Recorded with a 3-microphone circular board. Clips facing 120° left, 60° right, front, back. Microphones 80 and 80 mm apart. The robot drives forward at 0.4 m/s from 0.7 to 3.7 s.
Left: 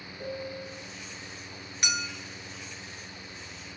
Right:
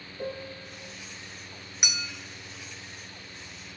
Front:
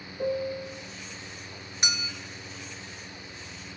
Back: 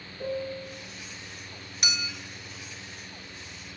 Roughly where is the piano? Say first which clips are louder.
Even, front 3 dB; ahead.